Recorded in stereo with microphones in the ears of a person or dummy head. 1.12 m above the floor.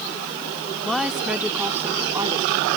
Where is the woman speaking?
10° left (ahead or behind); by 2.8 s 20° right (ahead or behind).